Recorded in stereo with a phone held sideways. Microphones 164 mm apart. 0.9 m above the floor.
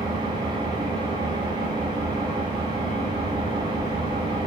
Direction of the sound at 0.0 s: 25° right (ahead or behind).